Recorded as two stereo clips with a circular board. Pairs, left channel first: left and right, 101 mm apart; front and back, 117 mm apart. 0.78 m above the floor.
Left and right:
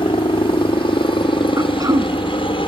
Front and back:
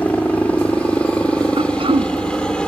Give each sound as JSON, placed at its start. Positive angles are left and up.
{"t": 0.0, "sound": "a helicopter", "azimuth_deg": 75}
{"t": 1.6, "sound": "throat clearing", "azimuth_deg": -145}